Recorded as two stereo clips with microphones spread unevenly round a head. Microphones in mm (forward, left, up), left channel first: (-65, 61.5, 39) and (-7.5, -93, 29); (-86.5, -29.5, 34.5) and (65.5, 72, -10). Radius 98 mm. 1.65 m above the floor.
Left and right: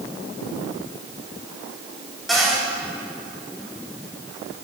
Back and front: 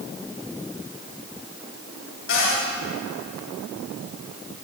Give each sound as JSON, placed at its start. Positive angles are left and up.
{"t": 2.3, "sound": "a cupboard door", "azimuth_deg": -160, "distance_m": 7.5}